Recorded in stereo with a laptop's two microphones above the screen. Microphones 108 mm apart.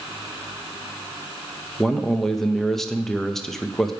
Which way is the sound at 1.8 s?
5° left (ahead or behind).